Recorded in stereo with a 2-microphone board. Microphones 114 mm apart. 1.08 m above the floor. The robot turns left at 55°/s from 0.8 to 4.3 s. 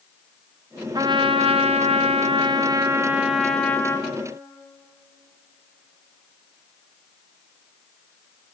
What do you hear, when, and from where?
0.9 s a trumpet: 45° right, 0.6 m; by 4.2 s 140° left, 0.6 m